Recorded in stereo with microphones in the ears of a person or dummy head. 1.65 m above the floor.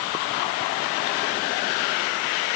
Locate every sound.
Only background noise.